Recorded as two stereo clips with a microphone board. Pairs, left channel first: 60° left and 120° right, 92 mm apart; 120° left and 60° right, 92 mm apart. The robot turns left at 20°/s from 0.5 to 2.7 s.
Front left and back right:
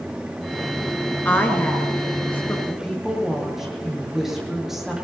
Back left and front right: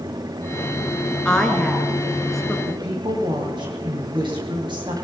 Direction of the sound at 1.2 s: 55° left.